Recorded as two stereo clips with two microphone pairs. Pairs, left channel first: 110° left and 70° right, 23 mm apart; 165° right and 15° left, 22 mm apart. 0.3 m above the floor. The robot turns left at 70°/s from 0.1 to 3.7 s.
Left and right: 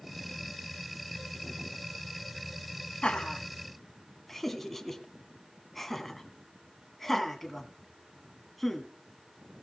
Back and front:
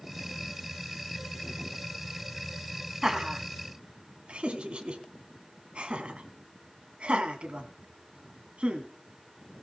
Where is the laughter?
80° left, 2.0 m; by 8.9 s 30° left, 2.0 m.